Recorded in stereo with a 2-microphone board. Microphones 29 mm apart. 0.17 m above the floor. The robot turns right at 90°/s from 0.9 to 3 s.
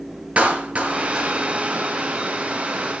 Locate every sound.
0.4 s a clap: 50° right (ahead or behind), 3 m; by 1.3 s 15° right (ahead or behind), 3 m